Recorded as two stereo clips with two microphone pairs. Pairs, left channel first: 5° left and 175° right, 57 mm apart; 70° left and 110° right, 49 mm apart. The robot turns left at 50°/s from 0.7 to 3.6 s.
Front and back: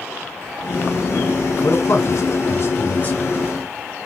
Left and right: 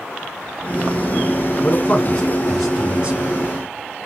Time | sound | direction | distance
1.6 | a man speaking | 25° left | 3.5 m